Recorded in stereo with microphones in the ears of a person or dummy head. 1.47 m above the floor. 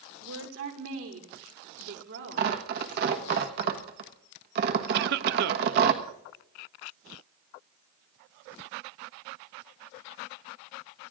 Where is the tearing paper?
60° right (ahead or behind), 1.2 m.